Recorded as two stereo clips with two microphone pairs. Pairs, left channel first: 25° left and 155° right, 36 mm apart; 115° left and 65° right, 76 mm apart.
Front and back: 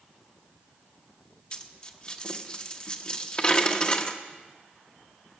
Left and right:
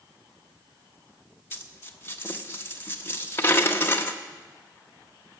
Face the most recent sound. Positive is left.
turn(degrees=70)